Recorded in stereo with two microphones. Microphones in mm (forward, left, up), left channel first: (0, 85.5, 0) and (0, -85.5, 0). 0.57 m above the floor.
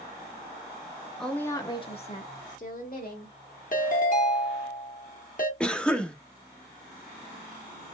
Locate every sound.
1.2 s a woman speaking: centre (ahead or behind), 0.8 m; by 3.3 s 60° left (ahead or behind), 1.5 m
3.7 s a ringtone: 50° left (ahead or behind), 0.9 m
5.6 s a cough: 5° left (ahead or behind), 0.7 m